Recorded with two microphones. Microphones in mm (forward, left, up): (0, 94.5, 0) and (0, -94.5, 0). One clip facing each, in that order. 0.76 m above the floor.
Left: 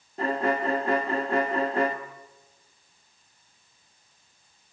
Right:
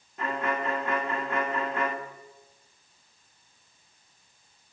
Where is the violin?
35° left (ahead or behind), 1.6 m.